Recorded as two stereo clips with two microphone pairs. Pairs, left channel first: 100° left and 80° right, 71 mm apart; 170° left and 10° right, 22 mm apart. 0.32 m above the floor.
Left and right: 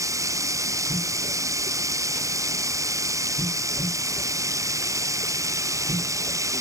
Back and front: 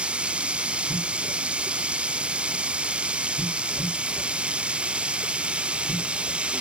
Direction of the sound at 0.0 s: 40° right.